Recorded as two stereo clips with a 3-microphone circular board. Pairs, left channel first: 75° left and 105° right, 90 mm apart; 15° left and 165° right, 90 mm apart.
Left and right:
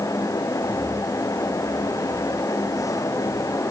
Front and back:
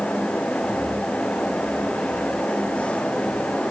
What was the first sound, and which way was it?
Only background noise.